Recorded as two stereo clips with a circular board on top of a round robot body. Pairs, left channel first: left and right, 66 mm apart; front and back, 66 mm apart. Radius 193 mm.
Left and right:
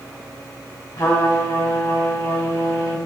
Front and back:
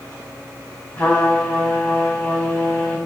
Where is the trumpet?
60° left, 3 m.